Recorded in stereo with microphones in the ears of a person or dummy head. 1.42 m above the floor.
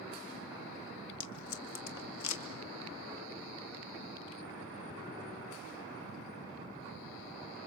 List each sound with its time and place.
1.2 s tape being pulled: 70° left (ahead or behind), 1.9 m